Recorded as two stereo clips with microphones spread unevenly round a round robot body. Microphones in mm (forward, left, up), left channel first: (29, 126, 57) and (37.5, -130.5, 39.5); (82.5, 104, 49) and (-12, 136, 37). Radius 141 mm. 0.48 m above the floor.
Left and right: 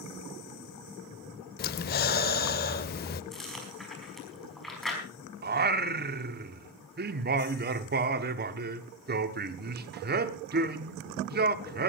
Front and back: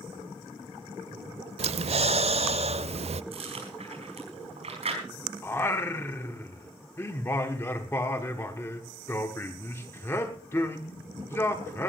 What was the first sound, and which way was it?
Breathing, 150° left.